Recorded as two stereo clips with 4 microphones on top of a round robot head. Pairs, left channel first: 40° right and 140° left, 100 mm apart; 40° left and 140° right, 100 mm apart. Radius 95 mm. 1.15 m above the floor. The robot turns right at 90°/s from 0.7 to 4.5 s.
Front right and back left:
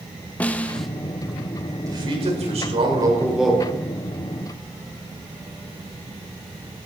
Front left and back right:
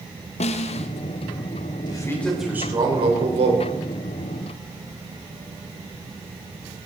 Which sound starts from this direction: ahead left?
A snare drum, at 0.4 s.